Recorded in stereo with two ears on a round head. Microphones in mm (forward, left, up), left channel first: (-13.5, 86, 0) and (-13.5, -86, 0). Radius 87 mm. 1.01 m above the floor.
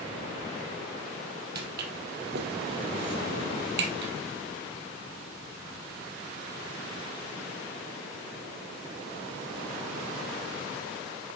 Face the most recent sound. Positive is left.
turn(degrees=-60)  # may be behind; listen again after turning